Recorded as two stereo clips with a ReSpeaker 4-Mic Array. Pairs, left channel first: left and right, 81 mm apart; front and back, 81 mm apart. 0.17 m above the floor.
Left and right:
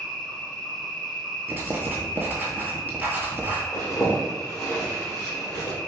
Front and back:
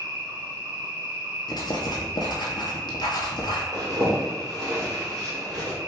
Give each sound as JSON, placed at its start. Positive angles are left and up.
{"t": 0.0, "sound": "an insect", "azimuth_deg": 170, "distance_m": 1.8}
{"t": 1.5, "sound": "writing", "azimuth_deg": -25, "distance_m": 0.9}
{"t": 3.7, "sound": "a zipper", "azimuth_deg": 140, "distance_m": 1.9}